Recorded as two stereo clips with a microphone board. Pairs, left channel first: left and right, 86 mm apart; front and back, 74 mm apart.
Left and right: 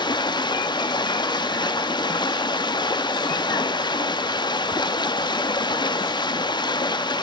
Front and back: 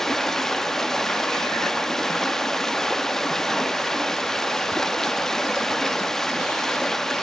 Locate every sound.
0.0 s running water: 85° left, 1.0 m